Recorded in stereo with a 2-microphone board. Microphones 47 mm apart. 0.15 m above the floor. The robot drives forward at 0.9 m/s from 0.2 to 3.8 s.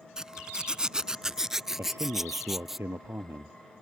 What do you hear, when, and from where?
0.2 s a zipper: 15° right (ahead or behind); by 2.8 s 5° right (ahead or behind)
1.8 s a man speaking: 65° right (ahead or behind); by 3.6 s 55° right (ahead or behind)